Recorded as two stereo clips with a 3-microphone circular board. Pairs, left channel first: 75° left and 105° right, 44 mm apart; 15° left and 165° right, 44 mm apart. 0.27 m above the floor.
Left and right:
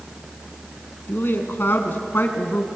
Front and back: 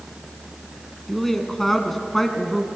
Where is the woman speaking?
95° left, 2.5 m.